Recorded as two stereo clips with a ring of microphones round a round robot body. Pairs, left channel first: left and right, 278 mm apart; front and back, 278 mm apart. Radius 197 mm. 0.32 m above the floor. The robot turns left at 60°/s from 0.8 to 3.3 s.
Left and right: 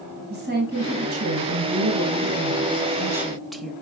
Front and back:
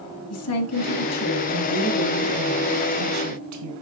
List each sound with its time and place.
0.3 s a woman speaking: 30° right, 2 m; by 3.7 s straight behind, 2 m